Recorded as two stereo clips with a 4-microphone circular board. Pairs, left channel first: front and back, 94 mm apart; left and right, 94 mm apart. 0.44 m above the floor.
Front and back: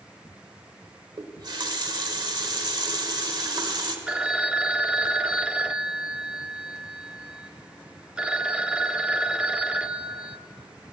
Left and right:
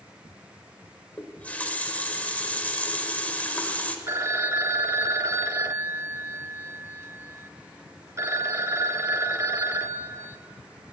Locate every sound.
1.2 s a running tap: 160° left, 1.2 m
4.1 s a phone ringing: 110° right, 0.5 m